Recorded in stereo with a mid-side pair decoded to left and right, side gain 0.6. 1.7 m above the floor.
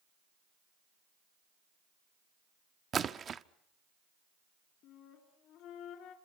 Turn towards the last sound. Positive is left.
turn(degrees=65)